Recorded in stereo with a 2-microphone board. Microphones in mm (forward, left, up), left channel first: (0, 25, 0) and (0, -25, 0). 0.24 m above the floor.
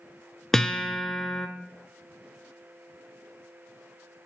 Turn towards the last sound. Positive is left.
turn(degrees=10)  # may be behind; listen again after turning